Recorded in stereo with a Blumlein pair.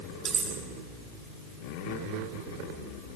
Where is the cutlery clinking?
35° right, 6.5 m.